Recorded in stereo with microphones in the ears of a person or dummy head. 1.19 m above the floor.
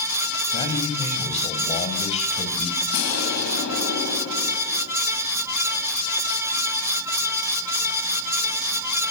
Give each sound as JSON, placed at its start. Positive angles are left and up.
{"t": 0.5, "sound": "a man speaking", "side_deg": 30, "distance_m": 7.5}
{"t": 2.9, "sound": "an explosion", "side_deg": 80, "distance_m": 6.5}